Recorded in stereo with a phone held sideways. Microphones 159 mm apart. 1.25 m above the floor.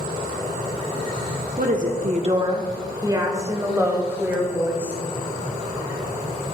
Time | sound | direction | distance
1.6 | a woman speaking | 60° right (ahead or behind) | 0.9 m